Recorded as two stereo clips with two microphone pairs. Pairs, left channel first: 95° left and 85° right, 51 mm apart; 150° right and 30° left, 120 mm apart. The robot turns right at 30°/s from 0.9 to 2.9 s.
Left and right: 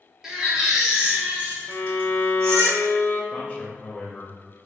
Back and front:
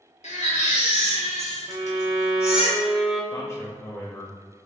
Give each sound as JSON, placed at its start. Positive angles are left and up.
{"t": 0.2, "sound": "a baby crying", "azimuth_deg": -165, "distance_m": 0.8}
{"t": 1.7, "sound": "a violin", "azimuth_deg": 70, "distance_m": 0.6}
{"t": 3.3, "sound": "a man speaking", "azimuth_deg": 155, "distance_m": 0.5}